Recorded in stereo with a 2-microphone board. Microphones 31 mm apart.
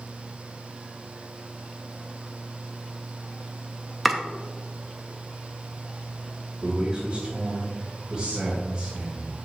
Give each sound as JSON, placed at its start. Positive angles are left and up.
{"t": 4.0, "sound": "chopping", "side_deg": -5, "distance_m": 0.7}
{"t": 6.6, "sound": "a man speaking", "side_deg": -25, "distance_m": 1.6}